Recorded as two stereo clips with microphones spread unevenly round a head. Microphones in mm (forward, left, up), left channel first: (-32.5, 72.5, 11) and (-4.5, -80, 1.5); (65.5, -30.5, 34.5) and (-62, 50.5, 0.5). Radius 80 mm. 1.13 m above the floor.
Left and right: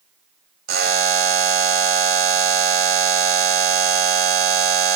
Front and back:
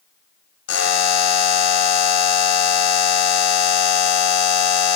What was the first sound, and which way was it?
A buzzer, 40° right.